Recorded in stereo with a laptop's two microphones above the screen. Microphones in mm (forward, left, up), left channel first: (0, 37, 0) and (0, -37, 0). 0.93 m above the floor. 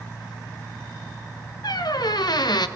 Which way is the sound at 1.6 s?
65° left (ahead or behind).